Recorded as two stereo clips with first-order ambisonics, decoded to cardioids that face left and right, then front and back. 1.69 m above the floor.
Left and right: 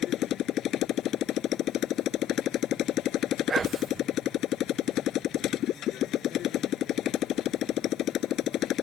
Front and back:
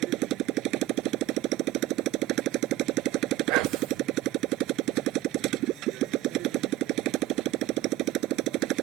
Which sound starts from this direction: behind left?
A motorcycle, at 0.0 s.